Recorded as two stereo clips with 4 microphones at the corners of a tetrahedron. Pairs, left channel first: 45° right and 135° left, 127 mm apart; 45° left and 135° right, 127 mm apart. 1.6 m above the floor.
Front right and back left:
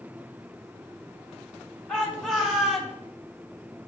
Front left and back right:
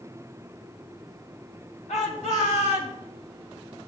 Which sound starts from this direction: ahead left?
A shout, at 1.9 s.